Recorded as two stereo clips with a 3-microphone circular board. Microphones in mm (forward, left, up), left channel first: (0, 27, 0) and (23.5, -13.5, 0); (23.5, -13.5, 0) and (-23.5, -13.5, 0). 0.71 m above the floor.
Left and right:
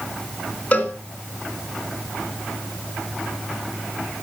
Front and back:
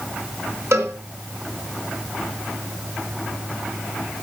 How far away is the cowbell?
About 2 m.